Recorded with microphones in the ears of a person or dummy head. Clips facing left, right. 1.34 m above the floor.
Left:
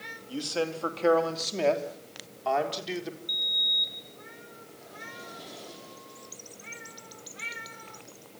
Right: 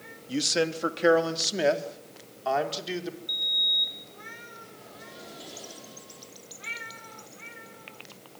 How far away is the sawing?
I don't hear sawing.